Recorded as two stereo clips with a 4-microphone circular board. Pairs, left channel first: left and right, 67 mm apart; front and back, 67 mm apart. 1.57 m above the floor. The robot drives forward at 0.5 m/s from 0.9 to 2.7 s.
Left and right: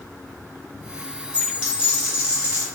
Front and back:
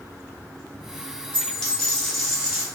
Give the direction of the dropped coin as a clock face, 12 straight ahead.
2 o'clock.